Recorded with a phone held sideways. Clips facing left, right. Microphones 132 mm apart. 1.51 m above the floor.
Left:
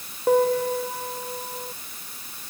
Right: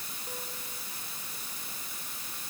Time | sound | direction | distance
0.3 | a piano | 75° left (ahead or behind) | ?